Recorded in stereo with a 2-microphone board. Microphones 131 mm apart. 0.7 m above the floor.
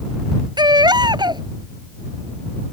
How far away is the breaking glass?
I don't hear breaking glass.